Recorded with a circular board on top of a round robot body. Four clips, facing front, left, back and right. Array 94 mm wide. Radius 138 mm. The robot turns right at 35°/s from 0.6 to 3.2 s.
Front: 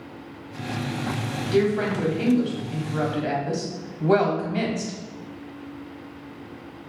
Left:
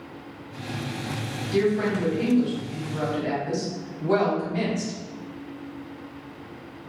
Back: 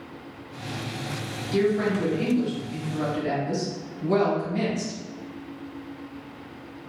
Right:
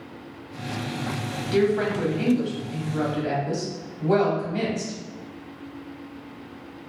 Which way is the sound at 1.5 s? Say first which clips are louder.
Right 1 dB, front 1 dB; 55° right.